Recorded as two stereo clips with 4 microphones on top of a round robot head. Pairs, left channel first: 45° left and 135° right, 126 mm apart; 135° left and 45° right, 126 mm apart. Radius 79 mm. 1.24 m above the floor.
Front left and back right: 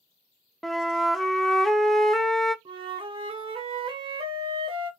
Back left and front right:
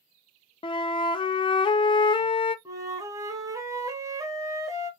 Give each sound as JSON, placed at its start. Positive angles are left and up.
{"t": 0.6, "sound": "a flute", "azimuth_deg": 135, "distance_m": 0.6}
{"t": 2.6, "sound": "a flute", "azimuth_deg": -100, "distance_m": 0.9}